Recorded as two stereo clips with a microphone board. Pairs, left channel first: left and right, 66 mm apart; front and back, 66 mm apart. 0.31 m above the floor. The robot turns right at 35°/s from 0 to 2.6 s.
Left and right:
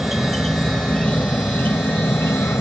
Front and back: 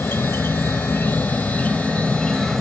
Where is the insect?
5° right; by 2.6 s 85° left.